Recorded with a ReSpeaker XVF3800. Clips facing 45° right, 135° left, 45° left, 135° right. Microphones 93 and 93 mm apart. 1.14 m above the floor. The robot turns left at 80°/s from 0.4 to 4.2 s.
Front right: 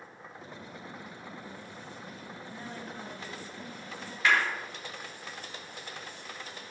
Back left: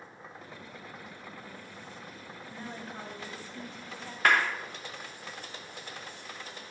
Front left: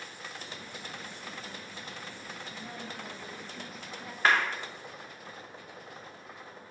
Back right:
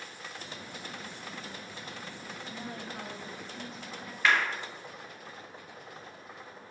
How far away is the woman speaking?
About 1.5 m.